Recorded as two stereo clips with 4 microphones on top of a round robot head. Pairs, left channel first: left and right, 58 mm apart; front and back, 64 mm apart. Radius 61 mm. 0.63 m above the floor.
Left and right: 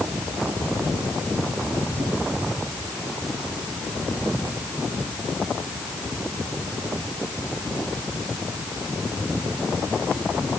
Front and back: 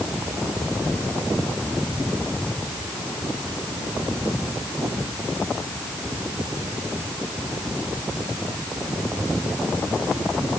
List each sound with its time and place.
Only background noise.